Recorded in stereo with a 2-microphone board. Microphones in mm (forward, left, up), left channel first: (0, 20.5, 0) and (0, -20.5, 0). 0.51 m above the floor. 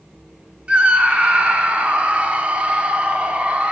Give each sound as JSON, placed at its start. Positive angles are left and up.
{"t": 0.7, "sound": "a scream", "side_deg": -30, "distance_m": 1.3}